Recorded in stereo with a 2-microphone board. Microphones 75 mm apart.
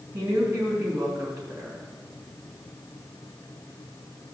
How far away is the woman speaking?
About 3 m.